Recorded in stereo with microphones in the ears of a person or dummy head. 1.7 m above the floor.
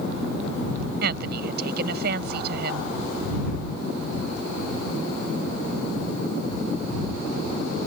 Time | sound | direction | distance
1.0 | a woman speaking | 60° right (ahead or behind) | ?